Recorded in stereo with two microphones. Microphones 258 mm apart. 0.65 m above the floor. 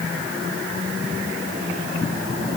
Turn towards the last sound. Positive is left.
No sound to turn to.